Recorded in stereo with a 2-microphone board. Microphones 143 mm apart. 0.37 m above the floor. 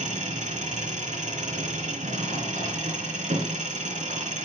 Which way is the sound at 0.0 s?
60° right (ahead or behind).